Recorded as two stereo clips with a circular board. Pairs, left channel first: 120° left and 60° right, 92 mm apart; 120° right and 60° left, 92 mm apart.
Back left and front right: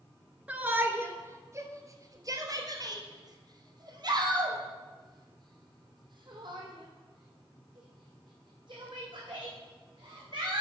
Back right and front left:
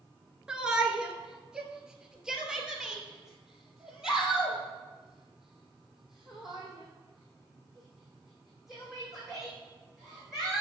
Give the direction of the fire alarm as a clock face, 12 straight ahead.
I don't hear a fire alarm.